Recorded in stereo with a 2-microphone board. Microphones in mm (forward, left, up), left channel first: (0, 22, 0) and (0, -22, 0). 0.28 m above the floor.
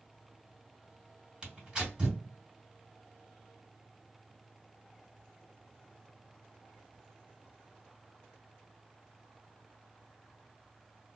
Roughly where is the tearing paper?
Centre.